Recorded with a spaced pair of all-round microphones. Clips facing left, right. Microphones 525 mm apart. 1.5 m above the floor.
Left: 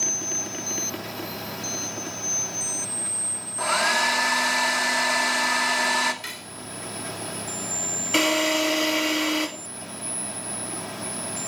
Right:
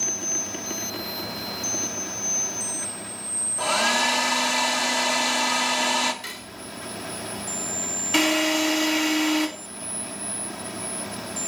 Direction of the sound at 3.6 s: 55° right (ahead or behind).